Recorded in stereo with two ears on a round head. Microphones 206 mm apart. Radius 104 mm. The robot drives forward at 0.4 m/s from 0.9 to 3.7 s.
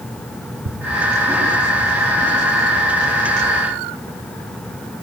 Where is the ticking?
70° right (ahead or behind), 4.5 m.